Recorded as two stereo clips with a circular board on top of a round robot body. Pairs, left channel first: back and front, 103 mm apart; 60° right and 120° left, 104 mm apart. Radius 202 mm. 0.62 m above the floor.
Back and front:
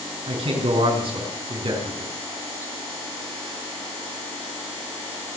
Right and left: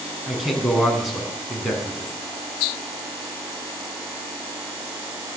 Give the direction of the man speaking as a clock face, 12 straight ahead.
11 o'clock.